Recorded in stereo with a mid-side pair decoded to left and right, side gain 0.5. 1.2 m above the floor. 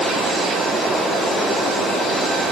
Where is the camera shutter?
No camera shutter in this recording.